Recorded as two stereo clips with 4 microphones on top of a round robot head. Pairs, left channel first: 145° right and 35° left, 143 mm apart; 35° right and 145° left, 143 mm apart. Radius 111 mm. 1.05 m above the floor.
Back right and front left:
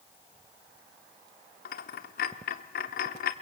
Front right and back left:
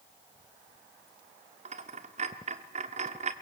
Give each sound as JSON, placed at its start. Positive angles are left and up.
{"t": 1.6, "sound": "a dropped coin", "azimuth_deg": -170, "distance_m": 1.1}